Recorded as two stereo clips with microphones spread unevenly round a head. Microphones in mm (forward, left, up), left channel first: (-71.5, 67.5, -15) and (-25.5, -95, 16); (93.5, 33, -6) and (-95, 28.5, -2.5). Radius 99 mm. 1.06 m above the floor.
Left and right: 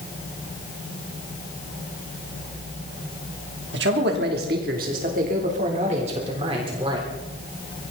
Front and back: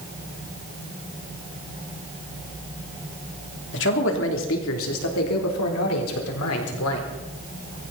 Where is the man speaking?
35° right, 3 m; by 7.1 s 5° right, 4 m.